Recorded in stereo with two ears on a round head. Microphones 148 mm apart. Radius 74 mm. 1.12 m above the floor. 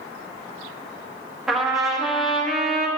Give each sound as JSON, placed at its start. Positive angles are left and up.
{"t": 1.5, "sound": "a trumpet", "side_deg": -5, "distance_m": 1.2}